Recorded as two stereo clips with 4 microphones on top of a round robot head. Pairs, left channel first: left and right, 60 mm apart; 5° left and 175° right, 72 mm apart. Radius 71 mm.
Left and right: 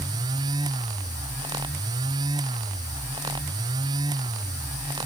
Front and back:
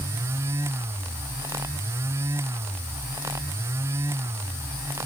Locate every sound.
Only background noise.